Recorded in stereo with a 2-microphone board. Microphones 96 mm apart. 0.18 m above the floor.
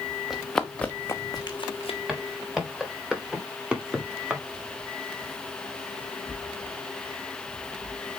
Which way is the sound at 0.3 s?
Centre (ahead or behind).